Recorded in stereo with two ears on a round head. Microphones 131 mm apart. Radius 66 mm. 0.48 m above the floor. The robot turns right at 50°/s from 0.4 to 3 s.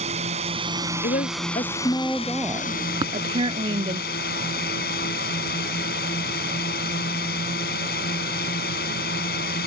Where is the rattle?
No rattle in this recording.